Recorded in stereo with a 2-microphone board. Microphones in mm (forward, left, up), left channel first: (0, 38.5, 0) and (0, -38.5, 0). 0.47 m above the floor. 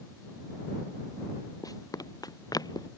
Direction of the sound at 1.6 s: 55° left (ahead or behind).